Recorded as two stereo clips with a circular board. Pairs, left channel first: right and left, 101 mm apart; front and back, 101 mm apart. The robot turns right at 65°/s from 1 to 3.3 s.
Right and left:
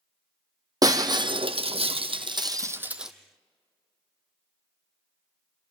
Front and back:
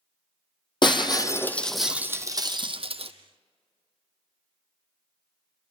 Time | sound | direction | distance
0.8 | breaking glass | 40° left | 1.0 m